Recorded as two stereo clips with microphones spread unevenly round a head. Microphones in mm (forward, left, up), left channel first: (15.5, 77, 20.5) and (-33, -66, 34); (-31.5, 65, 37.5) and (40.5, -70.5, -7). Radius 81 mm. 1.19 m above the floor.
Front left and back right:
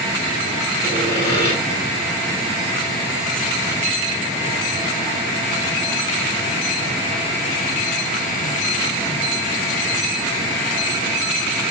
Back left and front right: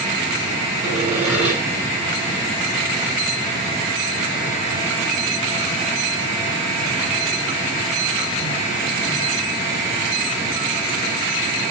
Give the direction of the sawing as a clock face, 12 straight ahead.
12 o'clock.